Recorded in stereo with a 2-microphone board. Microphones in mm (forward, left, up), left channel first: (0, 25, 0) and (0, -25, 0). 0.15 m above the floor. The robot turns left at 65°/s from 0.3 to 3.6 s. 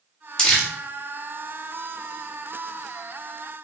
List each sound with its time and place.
0.4 s crumpling: 15° left (ahead or behind), 0.9 m; by 0.7 s centre (ahead or behind), 0.9 m